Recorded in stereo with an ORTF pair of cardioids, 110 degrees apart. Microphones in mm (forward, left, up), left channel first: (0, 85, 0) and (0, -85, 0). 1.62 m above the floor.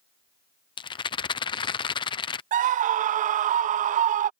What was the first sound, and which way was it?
A rattle, 30° left.